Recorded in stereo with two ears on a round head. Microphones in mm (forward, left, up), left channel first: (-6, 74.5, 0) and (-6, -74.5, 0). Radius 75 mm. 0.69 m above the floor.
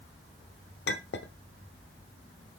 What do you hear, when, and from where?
0.9 s a clink: 70° left (ahead or behind), 1.0 m